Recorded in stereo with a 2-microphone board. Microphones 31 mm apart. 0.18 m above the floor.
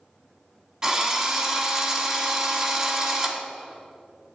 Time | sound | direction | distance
0.8 | a drill | 25° right (ahead or behind) | 1.3 m